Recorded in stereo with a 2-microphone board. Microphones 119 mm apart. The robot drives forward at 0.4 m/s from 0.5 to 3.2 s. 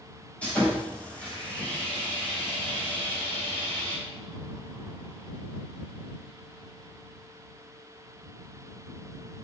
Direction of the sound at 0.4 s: 10° left (ahead or behind).